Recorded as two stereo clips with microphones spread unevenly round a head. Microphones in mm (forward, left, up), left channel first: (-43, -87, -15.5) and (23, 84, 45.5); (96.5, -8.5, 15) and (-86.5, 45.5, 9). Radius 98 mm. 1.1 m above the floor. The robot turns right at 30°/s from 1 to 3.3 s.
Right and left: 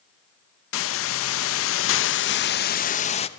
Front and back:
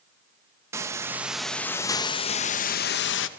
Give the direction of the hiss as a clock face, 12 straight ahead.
4 o'clock.